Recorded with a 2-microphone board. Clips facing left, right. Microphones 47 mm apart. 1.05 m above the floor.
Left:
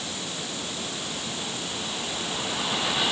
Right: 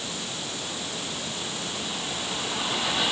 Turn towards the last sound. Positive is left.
No sound to turn to.